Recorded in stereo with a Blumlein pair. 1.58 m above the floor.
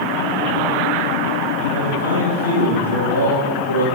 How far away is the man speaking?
About 9 m.